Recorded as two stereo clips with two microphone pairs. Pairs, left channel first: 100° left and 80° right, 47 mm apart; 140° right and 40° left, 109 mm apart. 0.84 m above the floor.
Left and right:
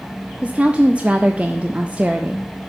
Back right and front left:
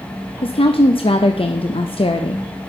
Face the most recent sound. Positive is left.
turn(degrees=-135)